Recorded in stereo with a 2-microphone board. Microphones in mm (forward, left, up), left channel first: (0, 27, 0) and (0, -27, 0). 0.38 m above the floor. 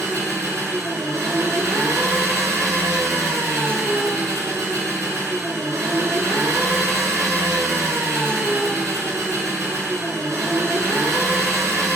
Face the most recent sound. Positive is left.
turn(degrees=-70)  # may be behind; listen again after turning